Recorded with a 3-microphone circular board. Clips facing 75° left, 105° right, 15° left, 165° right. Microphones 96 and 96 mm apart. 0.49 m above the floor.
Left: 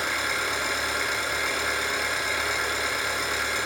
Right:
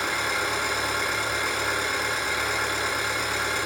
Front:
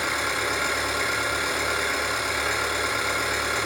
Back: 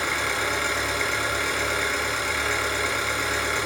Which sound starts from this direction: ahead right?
An engine running, at 0.0 s.